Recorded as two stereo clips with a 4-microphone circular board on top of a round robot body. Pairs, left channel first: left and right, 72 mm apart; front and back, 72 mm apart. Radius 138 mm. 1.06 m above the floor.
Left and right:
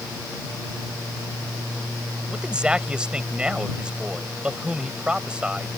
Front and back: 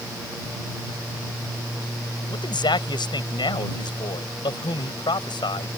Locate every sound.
2.3 s a man speaking: 10° right